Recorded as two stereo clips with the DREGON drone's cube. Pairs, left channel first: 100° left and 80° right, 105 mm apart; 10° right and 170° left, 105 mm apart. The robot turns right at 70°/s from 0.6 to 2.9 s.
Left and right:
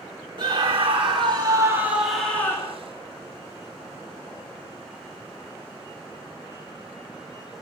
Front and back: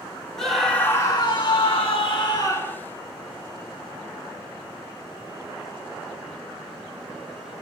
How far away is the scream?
About 1.6 m.